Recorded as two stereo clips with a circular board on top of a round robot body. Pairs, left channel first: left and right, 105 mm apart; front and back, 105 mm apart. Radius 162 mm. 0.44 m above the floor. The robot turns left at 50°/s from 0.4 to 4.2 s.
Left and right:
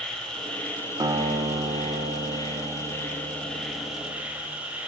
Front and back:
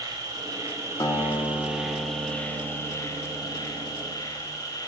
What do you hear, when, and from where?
0.0 s an insect: 170° left, 1.3 m; by 4.9 s 20° right, 1.3 m
1.0 s a guitar: 40° right, 0.9 m; by 4.5 s 160° left, 0.9 m